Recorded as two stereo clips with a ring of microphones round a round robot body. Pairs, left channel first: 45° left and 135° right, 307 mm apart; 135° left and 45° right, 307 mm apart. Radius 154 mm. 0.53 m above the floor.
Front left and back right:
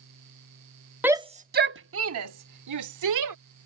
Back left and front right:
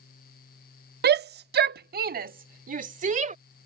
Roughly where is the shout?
Ahead right.